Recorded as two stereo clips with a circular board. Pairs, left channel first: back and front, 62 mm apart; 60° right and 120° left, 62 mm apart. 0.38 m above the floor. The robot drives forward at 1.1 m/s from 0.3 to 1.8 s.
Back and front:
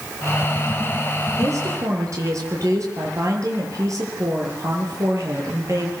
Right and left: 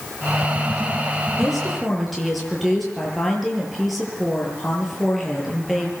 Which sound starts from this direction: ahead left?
A woman speaking, at 1.4 s.